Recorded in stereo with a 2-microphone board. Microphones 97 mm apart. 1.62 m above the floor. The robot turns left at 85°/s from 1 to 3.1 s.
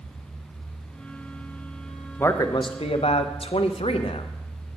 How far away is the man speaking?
About 0.8 m.